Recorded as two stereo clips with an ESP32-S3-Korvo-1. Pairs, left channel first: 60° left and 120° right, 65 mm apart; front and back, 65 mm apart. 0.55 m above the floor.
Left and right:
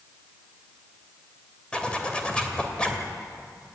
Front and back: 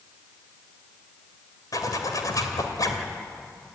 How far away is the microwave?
No microwave in this recording.